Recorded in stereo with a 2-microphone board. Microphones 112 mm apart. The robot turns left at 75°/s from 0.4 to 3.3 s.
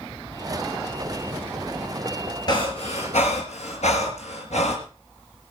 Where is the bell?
No bell in this recording.